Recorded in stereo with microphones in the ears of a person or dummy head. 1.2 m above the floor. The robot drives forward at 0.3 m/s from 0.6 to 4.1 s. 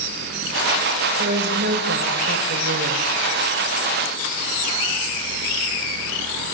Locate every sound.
1.2 s a woman speaking: 55° right (ahead or behind), 4.5 m; by 3.1 s 65° right (ahead or behind), 4 m